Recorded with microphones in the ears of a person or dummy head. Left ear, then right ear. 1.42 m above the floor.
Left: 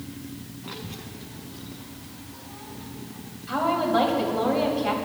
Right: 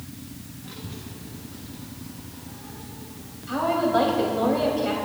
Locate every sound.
0.6 s a child speaking: 35° left (ahead or behind), 0.5 m; by 3.2 s 30° left (ahead or behind), 4 m
3.5 s a woman speaking: 15° left (ahead or behind), 3 m